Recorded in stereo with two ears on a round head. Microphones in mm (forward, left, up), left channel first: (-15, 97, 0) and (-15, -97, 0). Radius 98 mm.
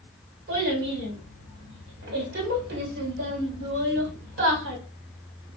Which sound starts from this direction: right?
A child speaking, at 0.5 s.